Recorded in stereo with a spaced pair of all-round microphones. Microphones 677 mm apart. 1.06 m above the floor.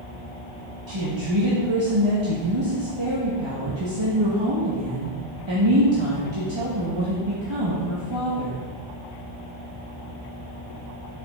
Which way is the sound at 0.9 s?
40° right (ahead or behind).